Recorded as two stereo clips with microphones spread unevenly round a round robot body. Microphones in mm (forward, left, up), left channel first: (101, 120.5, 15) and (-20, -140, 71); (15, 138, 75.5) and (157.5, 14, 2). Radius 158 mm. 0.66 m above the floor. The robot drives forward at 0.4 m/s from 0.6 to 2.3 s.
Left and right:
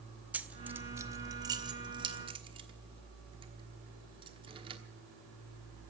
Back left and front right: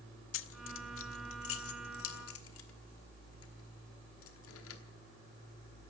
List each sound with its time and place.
0.3 s keys jangling: 150° left, 0.7 m; by 4.8 s 170° left, 1.3 m